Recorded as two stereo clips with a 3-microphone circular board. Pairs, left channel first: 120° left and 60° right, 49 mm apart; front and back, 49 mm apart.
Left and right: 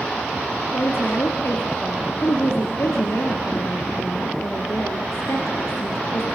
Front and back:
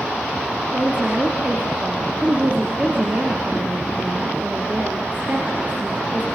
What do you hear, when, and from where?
0.7 s a woman speaking: 125° left, 4 m